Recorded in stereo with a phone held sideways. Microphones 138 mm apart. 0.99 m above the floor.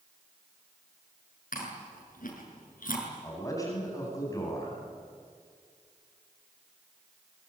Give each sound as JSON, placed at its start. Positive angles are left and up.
{"t": 1.5, "sound": "chewing", "side_deg": 85, "distance_m": 6.5}
{"t": 3.2, "sound": "a man speaking", "side_deg": 25, "distance_m": 9.0}